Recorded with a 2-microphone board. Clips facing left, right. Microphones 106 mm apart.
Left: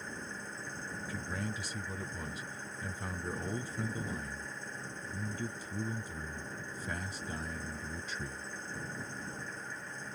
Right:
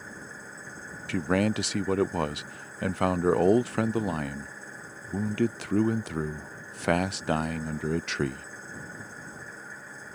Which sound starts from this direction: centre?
An engine running, at 0.0 s.